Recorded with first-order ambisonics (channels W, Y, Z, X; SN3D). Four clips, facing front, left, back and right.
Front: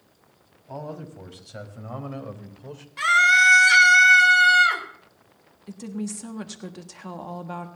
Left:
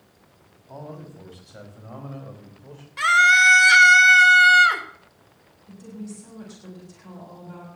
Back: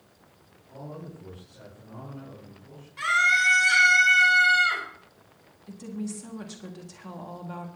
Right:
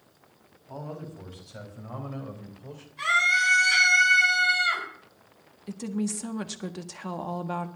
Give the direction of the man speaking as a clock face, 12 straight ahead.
12 o'clock.